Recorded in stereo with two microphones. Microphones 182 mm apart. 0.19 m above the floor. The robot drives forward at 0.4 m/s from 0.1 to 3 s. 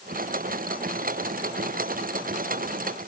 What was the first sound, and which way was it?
Only background noise.